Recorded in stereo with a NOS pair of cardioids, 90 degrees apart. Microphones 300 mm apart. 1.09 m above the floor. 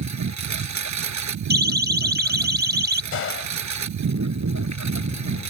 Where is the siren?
35° right.